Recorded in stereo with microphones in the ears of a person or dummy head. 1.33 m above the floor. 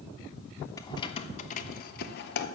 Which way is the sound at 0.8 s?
20° left (ahead or behind).